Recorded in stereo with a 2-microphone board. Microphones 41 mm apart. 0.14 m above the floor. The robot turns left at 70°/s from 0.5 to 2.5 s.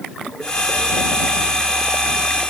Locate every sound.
Only background noise.